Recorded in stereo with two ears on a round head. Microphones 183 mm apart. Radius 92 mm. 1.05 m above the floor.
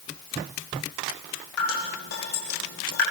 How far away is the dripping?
About 9 m.